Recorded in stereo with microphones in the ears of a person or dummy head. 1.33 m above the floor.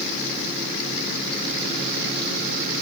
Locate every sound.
Only background noise.